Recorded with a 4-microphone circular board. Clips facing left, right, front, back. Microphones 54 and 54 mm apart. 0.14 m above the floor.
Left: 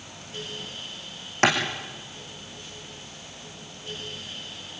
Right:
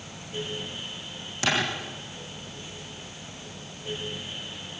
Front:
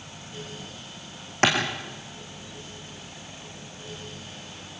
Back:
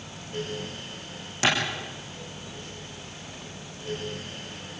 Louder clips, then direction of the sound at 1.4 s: Left 5 dB, front 2 dB; 45° left.